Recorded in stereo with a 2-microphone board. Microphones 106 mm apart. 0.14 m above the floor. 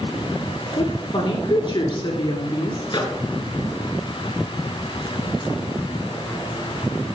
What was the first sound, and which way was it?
A woman speaking, 50° left (ahead or behind).